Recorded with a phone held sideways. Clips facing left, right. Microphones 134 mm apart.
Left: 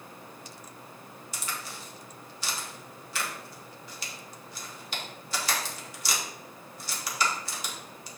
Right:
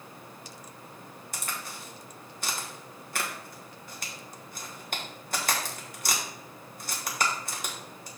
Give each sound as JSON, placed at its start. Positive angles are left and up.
{"t": 1.3, "sound": "a crack", "side_deg": -50, "distance_m": 1.6}